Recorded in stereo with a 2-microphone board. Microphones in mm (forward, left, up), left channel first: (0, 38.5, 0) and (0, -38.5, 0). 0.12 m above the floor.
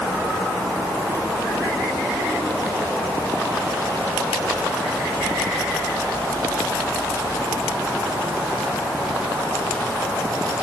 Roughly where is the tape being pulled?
I don't hear tape being pulled.